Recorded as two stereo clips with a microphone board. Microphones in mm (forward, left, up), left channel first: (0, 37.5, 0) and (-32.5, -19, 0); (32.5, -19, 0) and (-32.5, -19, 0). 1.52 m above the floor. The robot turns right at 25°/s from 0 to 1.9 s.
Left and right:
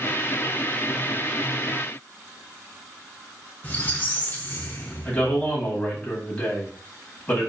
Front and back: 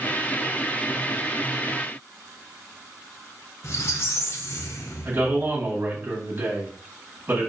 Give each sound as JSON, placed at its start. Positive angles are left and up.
{"t": 3.6, "sound": "a squeak", "azimuth_deg": 10, "distance_m": 0.6}
{"t": 5.0, "sound": "a man speaking", "azimuth_deg": 125, "distance_m": 1.5}